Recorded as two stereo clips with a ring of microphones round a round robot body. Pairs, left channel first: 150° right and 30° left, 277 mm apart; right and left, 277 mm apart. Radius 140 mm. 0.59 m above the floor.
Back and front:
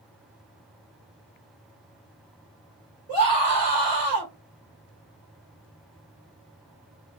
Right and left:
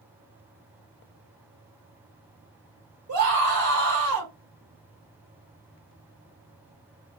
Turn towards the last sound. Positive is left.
turn(degrees=90)